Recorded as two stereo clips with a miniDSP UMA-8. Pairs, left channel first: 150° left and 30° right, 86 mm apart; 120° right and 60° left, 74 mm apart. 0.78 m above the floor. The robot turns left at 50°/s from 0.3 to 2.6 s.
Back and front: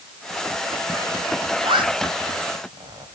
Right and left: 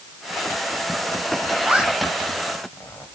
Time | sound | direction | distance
1.6 | a zipper | 10° right | 3 m